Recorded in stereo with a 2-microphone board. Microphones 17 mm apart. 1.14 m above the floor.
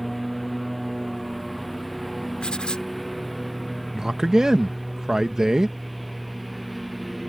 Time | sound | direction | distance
0.0 | a lawn mower | centre (ahead or behind) | ?
2.4 | writing | 65° left (ahead or behind) | ?
3.9 | a man speaking | 35° right (ahead or behind) | ?